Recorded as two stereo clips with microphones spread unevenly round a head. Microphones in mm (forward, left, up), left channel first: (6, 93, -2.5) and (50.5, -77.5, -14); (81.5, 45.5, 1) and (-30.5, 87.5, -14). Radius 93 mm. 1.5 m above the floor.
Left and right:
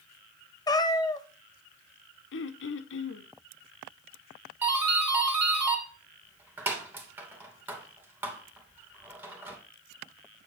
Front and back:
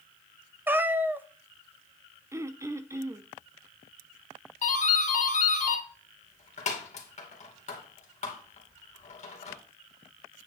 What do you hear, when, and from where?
0.7 s a cat meowing: 90° left, 0.7 m
2.3 s throat clearing: 90° left, 0.8 m
4.6 s a doorbell: 5° left, 2.5 m